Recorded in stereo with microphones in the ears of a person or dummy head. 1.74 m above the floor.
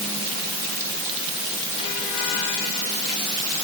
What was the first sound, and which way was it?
Only background noise.